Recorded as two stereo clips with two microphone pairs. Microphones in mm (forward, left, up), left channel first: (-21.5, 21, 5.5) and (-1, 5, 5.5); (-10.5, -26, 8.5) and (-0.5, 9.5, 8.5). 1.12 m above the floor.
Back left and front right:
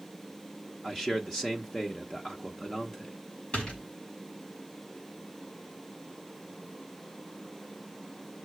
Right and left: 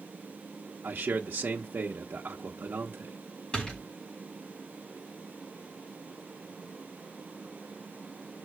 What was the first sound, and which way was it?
A man speaking, 80° left.